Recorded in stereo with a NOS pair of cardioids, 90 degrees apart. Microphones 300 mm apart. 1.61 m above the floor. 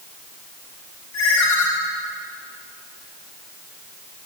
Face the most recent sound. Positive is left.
turn(degrees=65)